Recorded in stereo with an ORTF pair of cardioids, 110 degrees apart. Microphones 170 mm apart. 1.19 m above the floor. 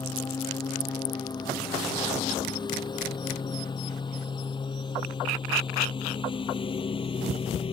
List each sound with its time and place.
0.0 s a lawn mower: 25° left; by 7.7 s 30° left